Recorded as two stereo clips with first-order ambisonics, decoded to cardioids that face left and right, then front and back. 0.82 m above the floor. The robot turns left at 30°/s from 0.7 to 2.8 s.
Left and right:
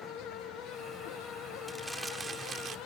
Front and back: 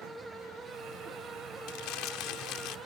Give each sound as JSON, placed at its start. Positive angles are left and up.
{"t": 1.7, "sound": "crumpling", "azimuth_deg": 0}